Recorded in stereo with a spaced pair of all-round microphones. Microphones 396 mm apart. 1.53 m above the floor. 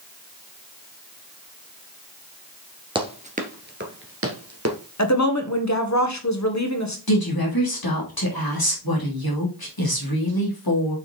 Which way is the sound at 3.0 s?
10° right (ahead or behind).